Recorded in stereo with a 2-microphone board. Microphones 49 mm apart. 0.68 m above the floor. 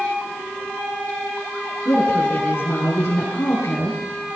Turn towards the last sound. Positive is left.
turn(degrees=50)  # may be behind; listen again after turning